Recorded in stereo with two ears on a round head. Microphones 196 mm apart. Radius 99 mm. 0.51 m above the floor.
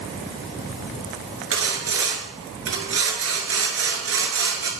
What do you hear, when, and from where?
1.5 s sawing: 70° right (ahead or behind), 2.5 m